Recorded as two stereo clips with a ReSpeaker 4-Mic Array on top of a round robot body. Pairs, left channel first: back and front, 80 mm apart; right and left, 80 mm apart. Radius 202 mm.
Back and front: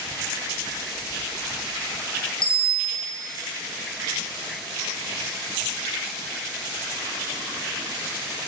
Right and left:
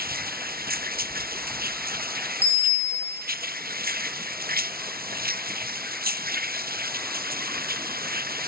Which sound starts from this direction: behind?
A bicycle bell, at 2.4 s.